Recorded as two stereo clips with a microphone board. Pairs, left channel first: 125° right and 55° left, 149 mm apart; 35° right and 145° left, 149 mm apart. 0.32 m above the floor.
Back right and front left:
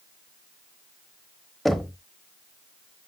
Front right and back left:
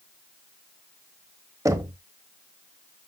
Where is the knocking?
145° left, 0.8 m.